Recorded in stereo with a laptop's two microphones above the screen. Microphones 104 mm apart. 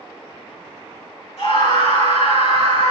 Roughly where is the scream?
Left.